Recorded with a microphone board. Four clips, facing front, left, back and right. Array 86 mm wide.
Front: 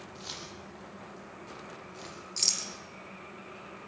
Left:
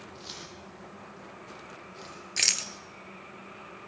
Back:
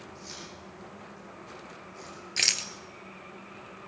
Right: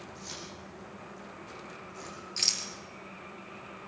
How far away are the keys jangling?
About 9 m.